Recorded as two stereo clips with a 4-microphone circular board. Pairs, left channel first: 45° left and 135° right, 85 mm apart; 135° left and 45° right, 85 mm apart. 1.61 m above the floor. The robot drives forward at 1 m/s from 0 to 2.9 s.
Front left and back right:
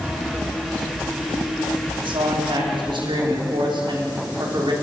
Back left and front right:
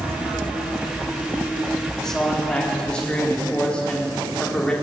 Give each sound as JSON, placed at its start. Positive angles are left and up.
{"t": 2.0, "sound": "a man speaking", "azimuth_deg": -140, "distance_m": 4.5}